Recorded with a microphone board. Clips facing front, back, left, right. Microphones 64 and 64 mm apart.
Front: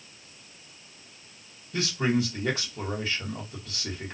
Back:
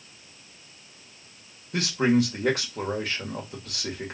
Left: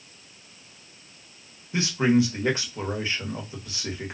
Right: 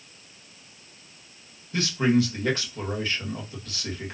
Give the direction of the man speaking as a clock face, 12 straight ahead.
7 o'clock.